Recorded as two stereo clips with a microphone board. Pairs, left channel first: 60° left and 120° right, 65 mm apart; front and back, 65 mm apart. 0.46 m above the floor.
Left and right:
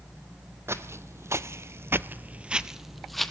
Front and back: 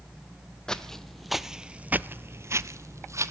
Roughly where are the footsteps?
Right.